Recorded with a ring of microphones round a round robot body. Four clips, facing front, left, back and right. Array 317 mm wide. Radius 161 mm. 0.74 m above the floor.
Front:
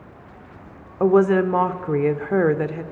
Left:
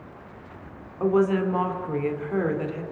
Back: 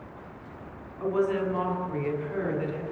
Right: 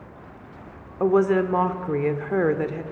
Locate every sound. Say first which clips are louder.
1.0 s a woman speaking: right 2 dB, front 10 dB; 20° right, 2.5 m